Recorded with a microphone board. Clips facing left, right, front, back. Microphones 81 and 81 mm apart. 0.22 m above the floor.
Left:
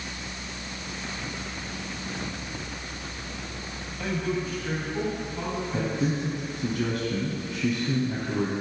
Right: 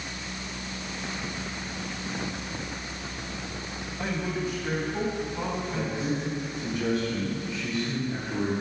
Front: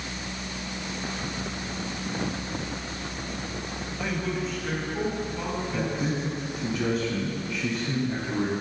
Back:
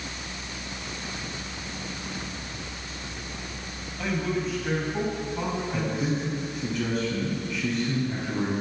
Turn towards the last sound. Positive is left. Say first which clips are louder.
# left 5 dB, front 1 dB
turn(degrees=80)